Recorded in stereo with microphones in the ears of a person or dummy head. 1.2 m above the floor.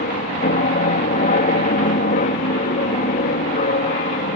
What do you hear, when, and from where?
0.0 s an aircraft: 40° left (ahead or behind)